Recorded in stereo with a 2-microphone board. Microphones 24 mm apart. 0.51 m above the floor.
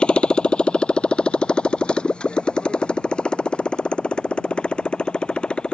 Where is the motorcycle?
40° left (ahead or behind).